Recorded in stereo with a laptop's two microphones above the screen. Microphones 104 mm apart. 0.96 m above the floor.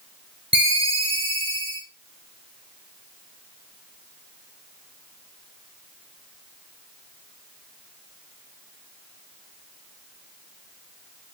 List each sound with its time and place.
0.5 s a ringtone: 80° right, 1.7 m